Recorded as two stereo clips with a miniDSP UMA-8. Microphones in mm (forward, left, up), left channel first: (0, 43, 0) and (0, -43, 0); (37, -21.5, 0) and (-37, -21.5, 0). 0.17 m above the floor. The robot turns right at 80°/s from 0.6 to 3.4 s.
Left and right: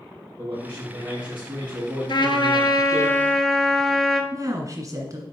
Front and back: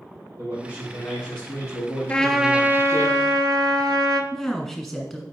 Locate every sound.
0.4 s a man speaking: 125° right, 4 m; by 3.1 s 75° left, 4 m
2.1 s a trumpet: 70° left, 0.7 m; by 4.2 s 175° left, 0.7 m
4.3 s a woman speaking: 90° right, 1.7 m